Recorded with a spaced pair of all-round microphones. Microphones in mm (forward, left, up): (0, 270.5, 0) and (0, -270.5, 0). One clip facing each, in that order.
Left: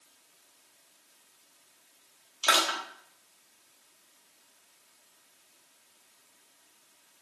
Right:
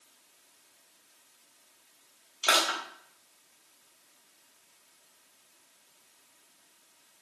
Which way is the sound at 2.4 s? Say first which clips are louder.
Even; 25° left (ahead or behind).